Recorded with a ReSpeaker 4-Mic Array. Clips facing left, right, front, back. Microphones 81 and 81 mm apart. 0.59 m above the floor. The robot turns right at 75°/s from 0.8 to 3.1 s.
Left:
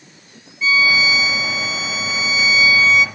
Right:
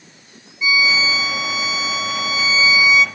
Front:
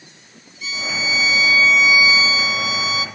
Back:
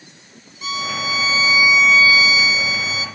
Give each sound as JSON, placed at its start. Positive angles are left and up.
{"t": 0.6, "sound": "a violin", "azimuth_deg": -165, "distance_m": 1.2}